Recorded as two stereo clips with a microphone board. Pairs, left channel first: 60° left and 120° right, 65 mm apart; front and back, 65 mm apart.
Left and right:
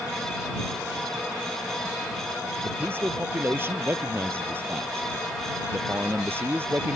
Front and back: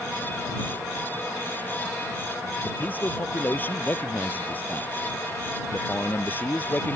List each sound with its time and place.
2.6 s a man speaking: 65° right